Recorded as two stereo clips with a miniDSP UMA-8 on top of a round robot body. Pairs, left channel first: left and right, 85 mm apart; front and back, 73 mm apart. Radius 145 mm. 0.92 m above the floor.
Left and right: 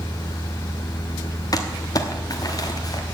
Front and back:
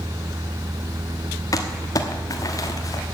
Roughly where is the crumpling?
Ahead left.